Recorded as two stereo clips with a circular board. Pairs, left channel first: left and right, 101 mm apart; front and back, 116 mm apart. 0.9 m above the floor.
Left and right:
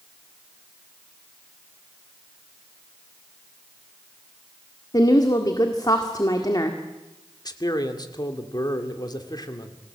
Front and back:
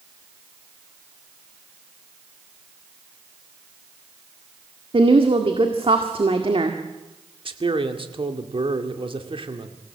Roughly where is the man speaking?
Behind left.